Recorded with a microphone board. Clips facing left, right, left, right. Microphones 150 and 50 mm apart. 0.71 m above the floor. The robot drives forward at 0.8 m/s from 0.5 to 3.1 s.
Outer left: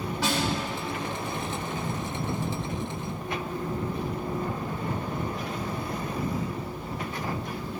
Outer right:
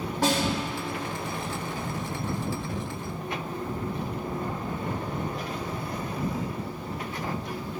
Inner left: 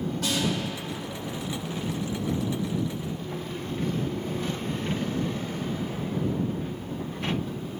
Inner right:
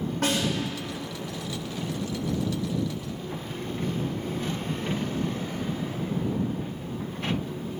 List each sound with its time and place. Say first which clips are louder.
0.2 s a snare drum: outer right 3 dB, inner right 2 dB; 50° right (ahead or behind), 2.5 m